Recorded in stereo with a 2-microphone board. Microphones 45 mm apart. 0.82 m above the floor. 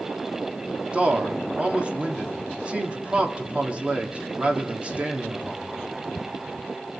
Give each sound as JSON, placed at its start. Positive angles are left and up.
{"t": 0.9, "sound": "a man speaking", "side_deg": -25, "distance_m": 1.7}